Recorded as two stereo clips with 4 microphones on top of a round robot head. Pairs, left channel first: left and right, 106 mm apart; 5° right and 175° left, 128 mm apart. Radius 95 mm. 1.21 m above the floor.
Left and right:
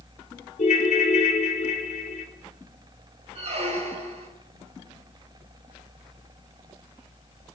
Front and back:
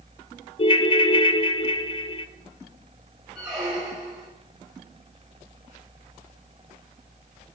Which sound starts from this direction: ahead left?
A ringtone, at 0.6 s.